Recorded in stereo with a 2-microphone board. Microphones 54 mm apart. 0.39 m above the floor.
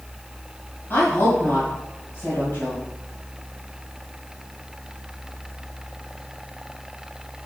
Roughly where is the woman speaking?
Left.